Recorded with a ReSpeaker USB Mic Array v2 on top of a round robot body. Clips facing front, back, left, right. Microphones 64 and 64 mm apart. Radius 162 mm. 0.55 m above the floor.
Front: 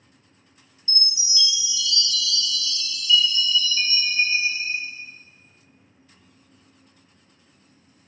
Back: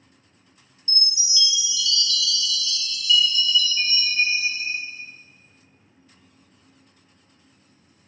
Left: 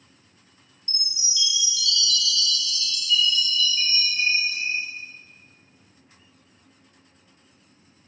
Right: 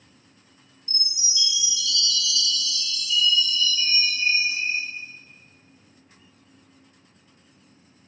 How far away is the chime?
About 0.7 m.